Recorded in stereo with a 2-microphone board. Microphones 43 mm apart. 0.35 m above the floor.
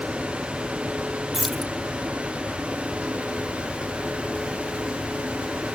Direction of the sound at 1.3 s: 5° right (ahead or behind).